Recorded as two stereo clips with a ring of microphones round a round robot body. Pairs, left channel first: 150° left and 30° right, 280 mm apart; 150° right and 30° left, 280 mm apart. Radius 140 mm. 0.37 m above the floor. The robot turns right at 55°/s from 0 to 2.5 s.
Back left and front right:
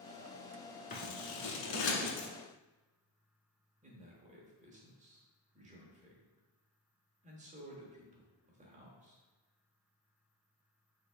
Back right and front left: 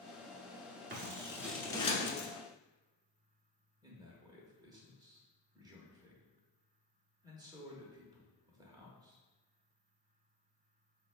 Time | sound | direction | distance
0.9 | scissors | 85° left | 1.0 m
3.8 | a man speaking | 25° right | 0.9 m